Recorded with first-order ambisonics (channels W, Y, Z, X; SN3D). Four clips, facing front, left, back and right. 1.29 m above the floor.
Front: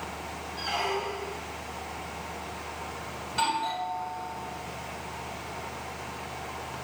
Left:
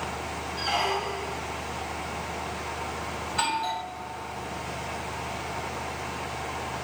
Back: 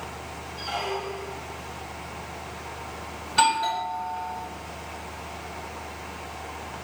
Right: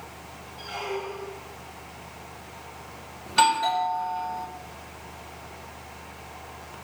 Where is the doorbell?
115° right, 2 m.